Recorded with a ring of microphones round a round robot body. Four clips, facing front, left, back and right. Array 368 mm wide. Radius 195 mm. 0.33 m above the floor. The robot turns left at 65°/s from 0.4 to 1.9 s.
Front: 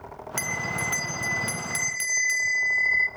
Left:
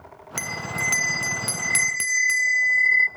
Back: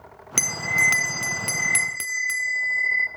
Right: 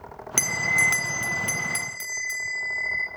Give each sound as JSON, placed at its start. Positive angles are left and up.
{"t": 0.4, "sound": "a bell", "azimuth_deg": -150, "distance_m": 0.9}